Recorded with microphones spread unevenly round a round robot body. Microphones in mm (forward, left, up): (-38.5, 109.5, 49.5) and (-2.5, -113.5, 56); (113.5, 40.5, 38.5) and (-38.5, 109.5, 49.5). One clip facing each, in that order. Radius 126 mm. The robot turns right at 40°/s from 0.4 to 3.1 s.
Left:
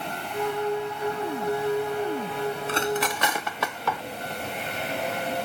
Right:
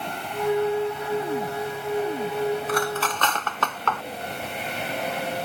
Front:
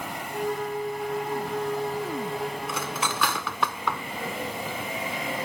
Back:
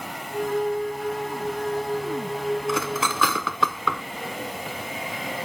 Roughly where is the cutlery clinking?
Behind.